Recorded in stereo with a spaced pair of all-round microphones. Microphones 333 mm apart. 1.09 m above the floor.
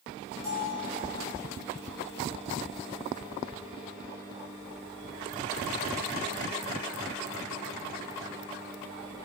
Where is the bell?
70° right (ahead or behind), 5.5 m.